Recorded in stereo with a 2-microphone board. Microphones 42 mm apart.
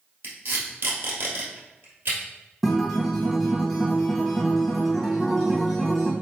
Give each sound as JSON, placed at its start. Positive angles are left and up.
{"t": 0.2, "sound": "tape being pulled", "side_deg": -55, "distance_m": 2.0}
{"t": 2.6, "sound": "a guitar", "side_deg": 0, "distance_m": 1.4}